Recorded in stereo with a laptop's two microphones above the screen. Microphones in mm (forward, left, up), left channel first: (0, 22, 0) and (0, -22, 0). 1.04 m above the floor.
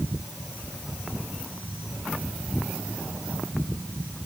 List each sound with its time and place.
Only background noise.